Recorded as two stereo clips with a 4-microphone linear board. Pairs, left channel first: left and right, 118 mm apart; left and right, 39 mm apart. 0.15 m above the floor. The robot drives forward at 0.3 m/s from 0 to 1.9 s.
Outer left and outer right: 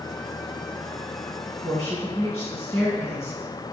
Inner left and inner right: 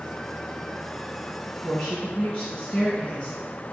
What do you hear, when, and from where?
1.5 s a woman speaking: 20° left (ahead or behind), 1.4 m